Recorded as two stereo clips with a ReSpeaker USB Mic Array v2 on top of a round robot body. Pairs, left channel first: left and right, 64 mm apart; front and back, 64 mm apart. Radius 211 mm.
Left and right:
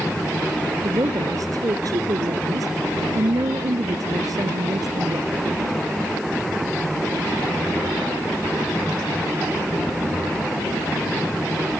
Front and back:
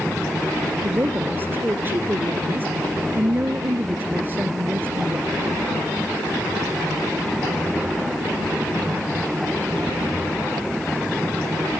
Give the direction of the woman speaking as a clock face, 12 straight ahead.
4 o'clock.